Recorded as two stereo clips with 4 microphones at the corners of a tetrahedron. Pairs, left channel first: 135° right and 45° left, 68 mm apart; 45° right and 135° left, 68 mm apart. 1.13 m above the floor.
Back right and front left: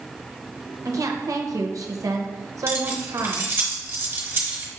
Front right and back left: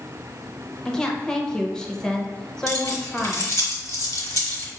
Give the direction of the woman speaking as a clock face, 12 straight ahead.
11 o'clock.